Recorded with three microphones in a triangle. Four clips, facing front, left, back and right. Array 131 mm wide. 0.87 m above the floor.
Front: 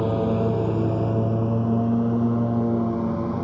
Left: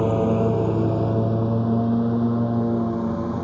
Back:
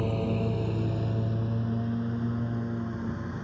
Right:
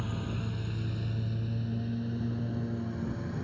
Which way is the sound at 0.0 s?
70° left.